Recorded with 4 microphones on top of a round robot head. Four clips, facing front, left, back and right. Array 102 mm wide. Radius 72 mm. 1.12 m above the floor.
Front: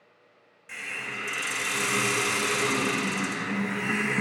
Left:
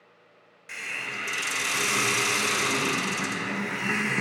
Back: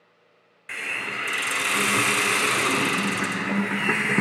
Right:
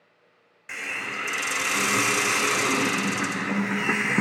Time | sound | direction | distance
0.7 | a hiss | 150° right | 0.6 m